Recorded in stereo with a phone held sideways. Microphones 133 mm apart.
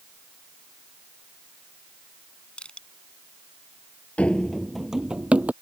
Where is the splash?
I don't hear a splash.